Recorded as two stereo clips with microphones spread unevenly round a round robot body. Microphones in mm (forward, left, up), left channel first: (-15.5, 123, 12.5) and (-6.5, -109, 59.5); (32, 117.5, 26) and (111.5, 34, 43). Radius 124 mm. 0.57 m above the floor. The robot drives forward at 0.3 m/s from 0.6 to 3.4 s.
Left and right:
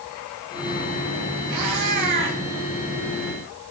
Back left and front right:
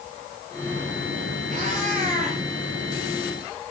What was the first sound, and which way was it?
A cat meowing, 80° right.